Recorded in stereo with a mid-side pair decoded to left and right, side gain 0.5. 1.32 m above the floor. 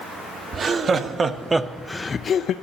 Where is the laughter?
50° right, 1.3 m; by 2.5 s 65° left, 0.6 m.